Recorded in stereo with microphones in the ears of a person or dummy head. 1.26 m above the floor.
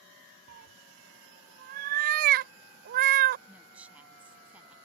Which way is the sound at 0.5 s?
50° right (ahead or behind).